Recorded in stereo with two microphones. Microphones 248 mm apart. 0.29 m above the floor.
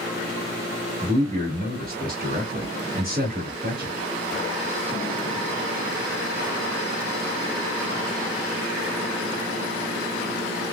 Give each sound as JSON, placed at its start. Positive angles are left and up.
{"t": 1.0, "sound": "a man speaking", "side_deg": -35, "distance_m": 1.3}